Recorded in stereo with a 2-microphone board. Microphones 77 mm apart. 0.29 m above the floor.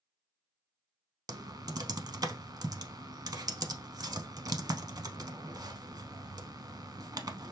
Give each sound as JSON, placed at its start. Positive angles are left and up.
{"t": 1.3, "sound": "typing on a keyboard", "side_deg": -60, "distance_m": 0.6}